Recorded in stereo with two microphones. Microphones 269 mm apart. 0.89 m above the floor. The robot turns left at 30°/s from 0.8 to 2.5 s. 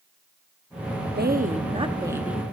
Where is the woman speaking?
140° right, 1.2 m; by 2.4 s straight behind, 1.2 m.